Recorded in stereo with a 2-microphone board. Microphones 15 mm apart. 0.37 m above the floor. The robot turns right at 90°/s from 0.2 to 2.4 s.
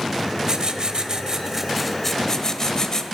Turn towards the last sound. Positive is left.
turn(degrees=50)